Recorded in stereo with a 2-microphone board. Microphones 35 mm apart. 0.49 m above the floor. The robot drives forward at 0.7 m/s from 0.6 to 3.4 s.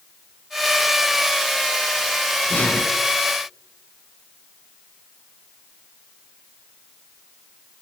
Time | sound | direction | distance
2.5 | breathing | 50° left (ahead or behind) | 2 m